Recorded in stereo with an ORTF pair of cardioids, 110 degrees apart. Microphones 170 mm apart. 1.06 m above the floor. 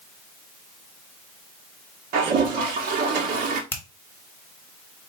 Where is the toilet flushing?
60° right, 1.1 m.